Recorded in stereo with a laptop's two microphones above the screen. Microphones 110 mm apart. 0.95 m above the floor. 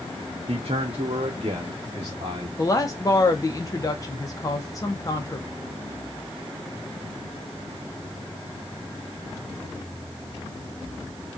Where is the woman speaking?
30° left (ahead or behind), 0.8 m.